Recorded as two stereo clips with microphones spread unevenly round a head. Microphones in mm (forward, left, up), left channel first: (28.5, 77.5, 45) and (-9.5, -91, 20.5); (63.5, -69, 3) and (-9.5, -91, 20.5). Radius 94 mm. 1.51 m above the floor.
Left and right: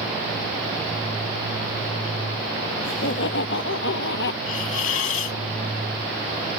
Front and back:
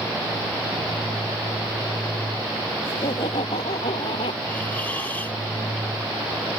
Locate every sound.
2.8 s laughter: 55° left; by 4.4 s 50° left
4.5 s a hiss: 100° left